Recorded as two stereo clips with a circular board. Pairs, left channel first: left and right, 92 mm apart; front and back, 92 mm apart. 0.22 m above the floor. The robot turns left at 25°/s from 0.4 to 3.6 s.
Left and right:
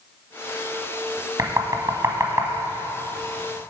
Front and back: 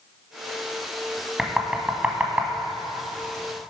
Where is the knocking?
100° right, 1.3 m; by 2.5 s 125° right, 1.3 m.